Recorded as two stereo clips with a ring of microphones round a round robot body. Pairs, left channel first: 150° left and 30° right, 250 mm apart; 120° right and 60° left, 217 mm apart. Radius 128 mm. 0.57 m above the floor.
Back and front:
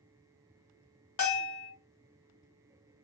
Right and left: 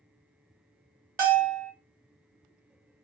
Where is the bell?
115° left, 1.4 m.